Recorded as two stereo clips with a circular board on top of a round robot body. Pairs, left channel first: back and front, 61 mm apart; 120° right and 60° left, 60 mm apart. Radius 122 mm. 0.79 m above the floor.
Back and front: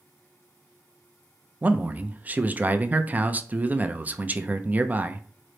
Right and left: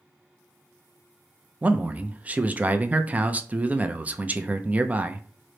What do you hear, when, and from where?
1.6 s a man speaking: 30° left, 0.5 m